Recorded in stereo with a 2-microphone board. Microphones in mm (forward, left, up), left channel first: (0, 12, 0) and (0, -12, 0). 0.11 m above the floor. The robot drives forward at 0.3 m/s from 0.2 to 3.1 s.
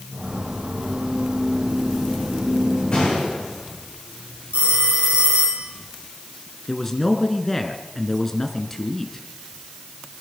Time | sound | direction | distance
2.9 | a gunshot | 55° left (ahead or behind) | 8 m
4.5 | a phone ringing | 65° right (ahead or behind) | 2.5 m
6.7 | a man speaking | 15° left (ahead or behind) | 1.4 m